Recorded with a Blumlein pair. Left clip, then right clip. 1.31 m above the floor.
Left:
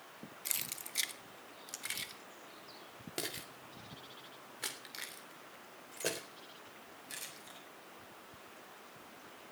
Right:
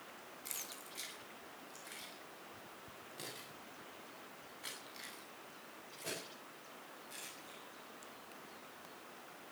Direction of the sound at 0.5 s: 65° left.